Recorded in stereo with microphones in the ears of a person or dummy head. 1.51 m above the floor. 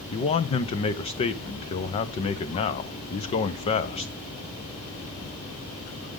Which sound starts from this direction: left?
A man speaking, at 0.1 s.